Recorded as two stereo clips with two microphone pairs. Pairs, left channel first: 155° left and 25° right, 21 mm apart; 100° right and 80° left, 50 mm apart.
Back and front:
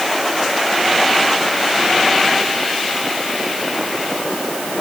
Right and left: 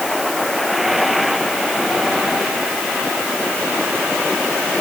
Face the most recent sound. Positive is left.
No sound to turn to.